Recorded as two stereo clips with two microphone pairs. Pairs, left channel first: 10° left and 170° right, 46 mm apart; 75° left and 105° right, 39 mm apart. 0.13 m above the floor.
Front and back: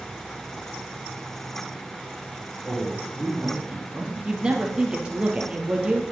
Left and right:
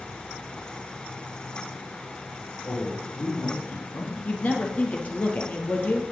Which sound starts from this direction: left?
A man speaking, at 2.6 s.